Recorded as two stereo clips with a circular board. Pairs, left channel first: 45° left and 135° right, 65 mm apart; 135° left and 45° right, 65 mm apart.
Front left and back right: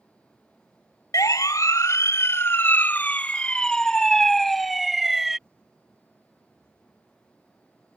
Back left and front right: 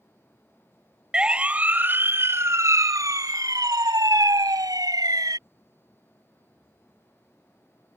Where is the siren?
30° left; by 5.4 s 50° right.